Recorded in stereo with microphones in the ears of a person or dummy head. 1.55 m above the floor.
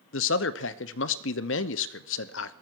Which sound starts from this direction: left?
A man speaking, at 0.1 s.